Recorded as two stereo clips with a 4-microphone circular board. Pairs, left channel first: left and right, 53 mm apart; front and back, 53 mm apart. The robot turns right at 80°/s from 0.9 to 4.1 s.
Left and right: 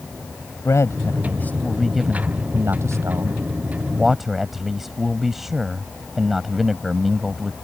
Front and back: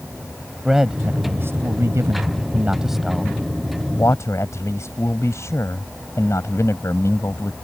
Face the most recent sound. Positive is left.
turn(degrees=-5)